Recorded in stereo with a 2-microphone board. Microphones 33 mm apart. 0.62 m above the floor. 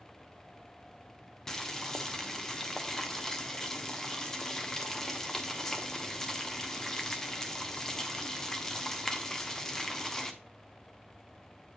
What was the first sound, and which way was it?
Boiling, 10° left (ahead or behind).